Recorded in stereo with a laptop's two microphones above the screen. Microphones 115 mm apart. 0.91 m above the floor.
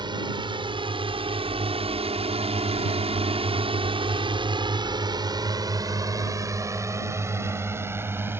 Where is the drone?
40° right (ahead or behind); by 8.4 s 20° right (ahead or behind).